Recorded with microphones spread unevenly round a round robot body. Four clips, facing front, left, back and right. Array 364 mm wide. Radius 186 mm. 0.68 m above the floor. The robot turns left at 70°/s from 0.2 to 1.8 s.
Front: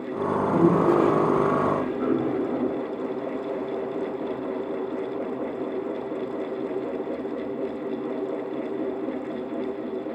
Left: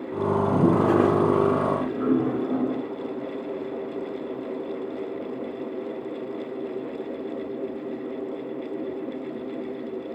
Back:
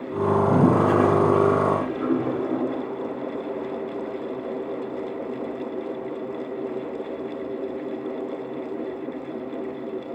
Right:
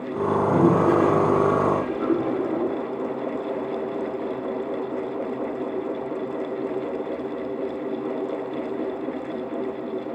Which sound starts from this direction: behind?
A toilet flushing, at 0.3 s.